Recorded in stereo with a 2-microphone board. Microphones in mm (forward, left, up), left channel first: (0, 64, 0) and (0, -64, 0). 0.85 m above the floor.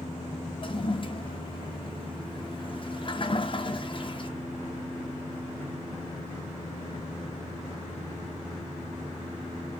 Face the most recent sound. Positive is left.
turn(degrees=40)  # may be behind; listen again after turning